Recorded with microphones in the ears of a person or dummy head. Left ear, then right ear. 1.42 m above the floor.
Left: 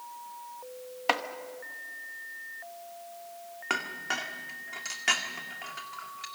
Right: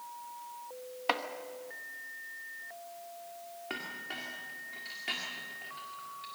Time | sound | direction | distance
1.1 | chopping | 10° left (ahead or behind) | 1.2 m
3.7 | a clink | 50° left (ahead or behind) | 1.9 m